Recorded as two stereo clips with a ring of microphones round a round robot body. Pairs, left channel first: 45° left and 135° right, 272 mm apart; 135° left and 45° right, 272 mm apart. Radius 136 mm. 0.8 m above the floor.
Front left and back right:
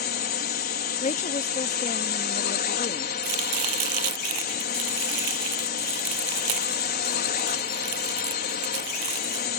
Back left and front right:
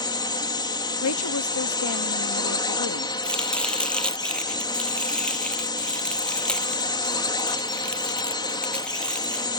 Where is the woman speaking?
105° left.